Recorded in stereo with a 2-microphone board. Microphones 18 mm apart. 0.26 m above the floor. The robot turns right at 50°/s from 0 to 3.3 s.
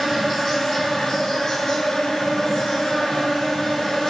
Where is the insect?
15° right, 1.6 m; by 4.1 s 150° left, 1.6 m.